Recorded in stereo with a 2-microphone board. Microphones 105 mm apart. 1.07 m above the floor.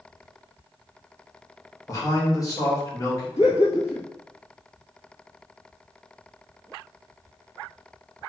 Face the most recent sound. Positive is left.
turn(degrees=70)  # may be behind; listen again after turning